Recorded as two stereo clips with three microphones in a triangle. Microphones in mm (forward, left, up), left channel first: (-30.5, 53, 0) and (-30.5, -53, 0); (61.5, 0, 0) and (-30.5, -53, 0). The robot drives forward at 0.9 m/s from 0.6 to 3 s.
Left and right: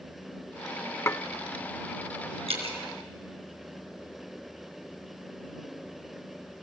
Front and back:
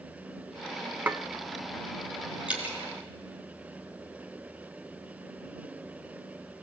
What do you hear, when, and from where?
1.1 s dishes clattering: 145° left, 0.5 m; by 1.2 s 155° left, 0.6 m
2.5 s dripping: 70° right, 4 m; by 2.8 s 75° right, 4 m